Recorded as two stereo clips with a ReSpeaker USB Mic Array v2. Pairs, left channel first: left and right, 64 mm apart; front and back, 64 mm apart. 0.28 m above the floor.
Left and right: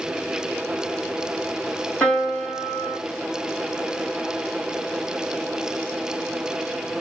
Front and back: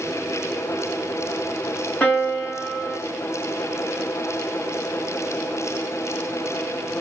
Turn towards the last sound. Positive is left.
turn(degrees=45)